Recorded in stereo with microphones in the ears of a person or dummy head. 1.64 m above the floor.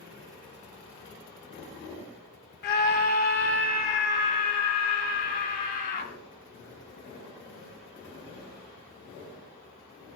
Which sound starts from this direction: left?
A scream, at 2.6 s.